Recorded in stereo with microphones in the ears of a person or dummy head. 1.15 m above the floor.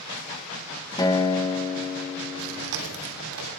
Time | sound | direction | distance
1.0 | a guitar | 20° left (ahead or behind) | 1.2 m
2.4 | chewing | 80° right | 3 m